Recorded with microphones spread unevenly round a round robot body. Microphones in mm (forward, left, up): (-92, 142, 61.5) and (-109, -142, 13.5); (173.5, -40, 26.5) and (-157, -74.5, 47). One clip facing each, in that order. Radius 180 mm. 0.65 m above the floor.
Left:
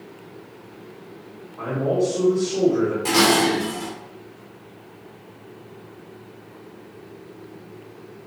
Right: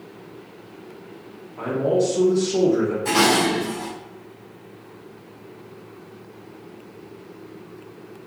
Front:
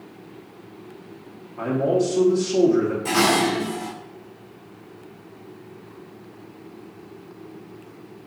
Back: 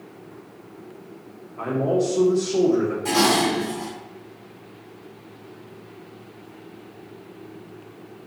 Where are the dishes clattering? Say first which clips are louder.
Left 1 dB, even; 90° left, 2 m.